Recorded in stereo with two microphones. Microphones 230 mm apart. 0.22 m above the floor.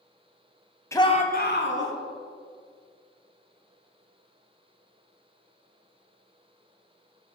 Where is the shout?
10° left (ahead or behind), 1.1 m; by 1.9 s 60° left (ahead or behind), 2 m.